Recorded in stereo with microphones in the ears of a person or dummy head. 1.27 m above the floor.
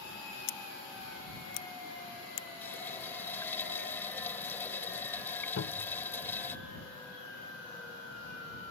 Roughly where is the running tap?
Centre.